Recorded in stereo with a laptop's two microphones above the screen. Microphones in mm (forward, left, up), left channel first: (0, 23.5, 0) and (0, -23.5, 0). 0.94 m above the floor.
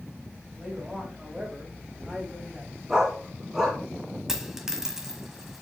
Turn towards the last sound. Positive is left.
turn(degrees=-10)  # may be behind; listen again after turning